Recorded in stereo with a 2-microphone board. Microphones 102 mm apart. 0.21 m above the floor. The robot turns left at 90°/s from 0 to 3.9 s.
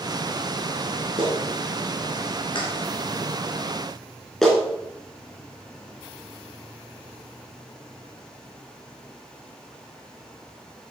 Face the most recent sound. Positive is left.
turn(degrees=5)  # may be behind; listen again after turning